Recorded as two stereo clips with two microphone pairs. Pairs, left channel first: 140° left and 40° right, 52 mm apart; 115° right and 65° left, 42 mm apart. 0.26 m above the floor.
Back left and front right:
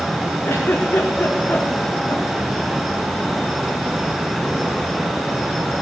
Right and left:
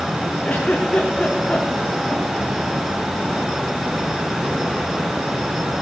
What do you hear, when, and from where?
0.4 s a giggle: straight behind, 3 m